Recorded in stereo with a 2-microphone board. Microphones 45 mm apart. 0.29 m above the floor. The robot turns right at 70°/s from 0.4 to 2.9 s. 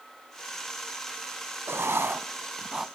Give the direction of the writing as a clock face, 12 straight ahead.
3 o'clock.